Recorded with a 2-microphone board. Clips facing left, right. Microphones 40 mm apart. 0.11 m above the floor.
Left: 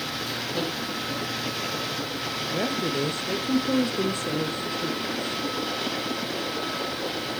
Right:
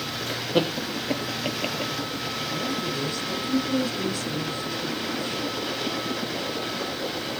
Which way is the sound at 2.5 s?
40° left (ahead or behind).